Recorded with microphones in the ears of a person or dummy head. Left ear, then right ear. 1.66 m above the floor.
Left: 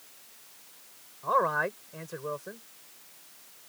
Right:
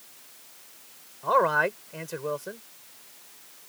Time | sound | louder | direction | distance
1.2 | a man speaking | right 4 dB | 15° right (ahead or behind) | ?